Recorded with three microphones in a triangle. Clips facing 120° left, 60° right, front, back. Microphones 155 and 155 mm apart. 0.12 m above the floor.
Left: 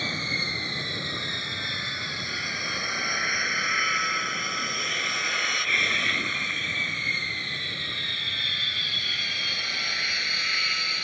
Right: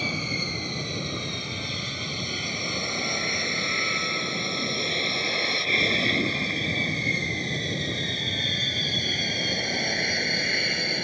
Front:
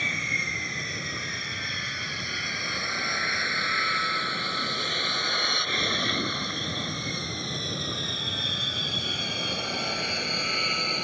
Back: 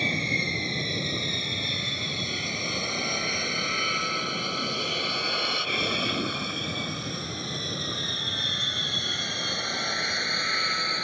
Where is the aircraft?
135° right; by 11.1 s 75° right.